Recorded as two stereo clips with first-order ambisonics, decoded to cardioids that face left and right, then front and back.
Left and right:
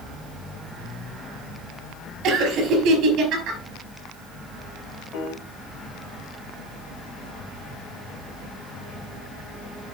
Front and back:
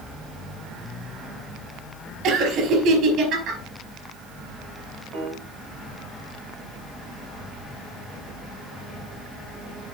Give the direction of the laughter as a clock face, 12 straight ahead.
5 o'clock.